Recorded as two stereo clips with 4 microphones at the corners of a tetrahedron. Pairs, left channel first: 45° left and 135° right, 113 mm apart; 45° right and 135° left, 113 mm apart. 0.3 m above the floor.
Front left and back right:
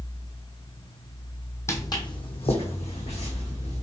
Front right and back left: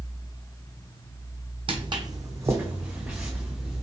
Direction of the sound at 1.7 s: 105° left.